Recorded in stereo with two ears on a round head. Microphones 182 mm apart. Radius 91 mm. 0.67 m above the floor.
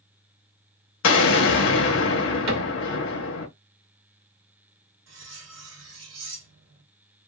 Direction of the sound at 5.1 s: 65° right (ahead or behind).